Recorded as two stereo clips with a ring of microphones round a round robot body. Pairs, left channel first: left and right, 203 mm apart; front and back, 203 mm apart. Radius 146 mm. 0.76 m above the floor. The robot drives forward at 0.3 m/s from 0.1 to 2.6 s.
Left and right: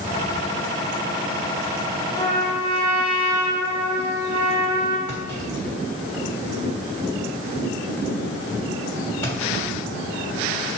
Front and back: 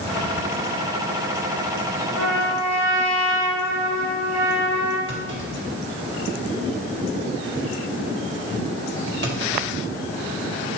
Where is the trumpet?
160° left, 1.4 m.